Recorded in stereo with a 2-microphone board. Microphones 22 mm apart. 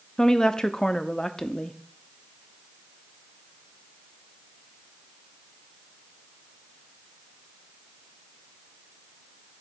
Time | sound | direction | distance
0.2 | a woman speaking | 30° left (ahead or behind) | 0.6 m